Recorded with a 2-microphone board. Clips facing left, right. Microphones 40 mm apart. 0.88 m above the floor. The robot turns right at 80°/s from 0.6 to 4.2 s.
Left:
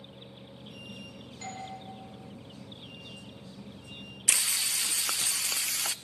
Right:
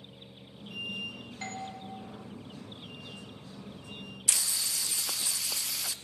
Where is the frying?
85° left, 0.6 m.